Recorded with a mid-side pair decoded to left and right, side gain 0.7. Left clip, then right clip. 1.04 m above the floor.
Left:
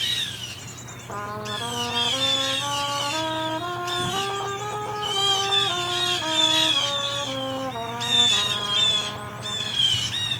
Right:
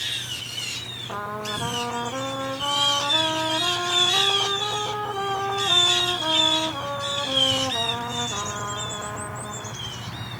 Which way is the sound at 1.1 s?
5° right.